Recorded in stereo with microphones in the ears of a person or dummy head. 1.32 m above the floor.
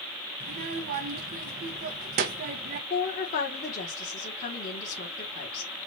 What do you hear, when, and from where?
0.4 s a child speaking: 40° right (ahead or behind), 0.7 m
2.9 s a woman speaking: 50° left (ahead or behind), 1.5 m